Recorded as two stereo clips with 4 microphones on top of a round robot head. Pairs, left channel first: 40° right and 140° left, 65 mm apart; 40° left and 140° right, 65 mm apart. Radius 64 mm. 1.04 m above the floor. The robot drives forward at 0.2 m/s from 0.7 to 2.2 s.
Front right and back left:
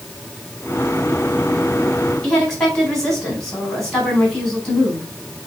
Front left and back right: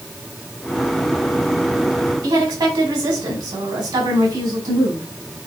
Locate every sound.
2.2 s a woman speaking: 125° right, 4 m